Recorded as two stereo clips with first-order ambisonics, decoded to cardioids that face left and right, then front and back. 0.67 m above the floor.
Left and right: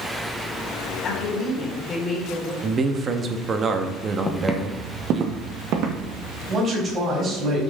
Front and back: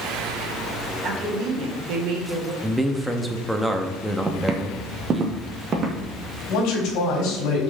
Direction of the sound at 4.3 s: 140° left.